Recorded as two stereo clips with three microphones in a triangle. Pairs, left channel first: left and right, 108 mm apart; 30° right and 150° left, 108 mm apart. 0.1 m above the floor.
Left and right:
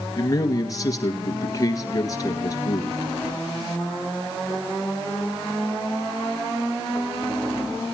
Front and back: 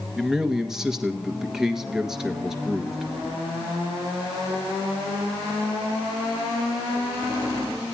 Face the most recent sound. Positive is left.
turn(degrees=70)